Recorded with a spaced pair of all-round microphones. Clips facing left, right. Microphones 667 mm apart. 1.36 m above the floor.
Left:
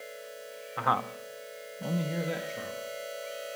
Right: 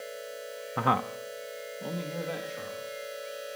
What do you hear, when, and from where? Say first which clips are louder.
0.8 s a man speaking: right 4 dB; 65° right (ahead or behind), 0.9 m; by 2.9 s 55° left (ahead or behind), 2.5 m